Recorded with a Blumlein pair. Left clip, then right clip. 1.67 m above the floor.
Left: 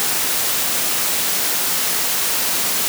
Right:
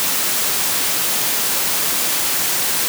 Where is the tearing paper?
No tearing paper in this recording.